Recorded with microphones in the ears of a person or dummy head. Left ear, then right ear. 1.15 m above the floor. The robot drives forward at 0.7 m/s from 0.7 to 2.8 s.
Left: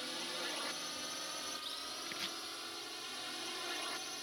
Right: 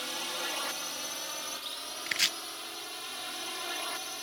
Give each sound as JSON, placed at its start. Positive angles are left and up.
{"t": 0.0, "sound": "a drone", "side_deg": -30}
{"t": 2.1, "sound": "chopping", "side_deg": -50}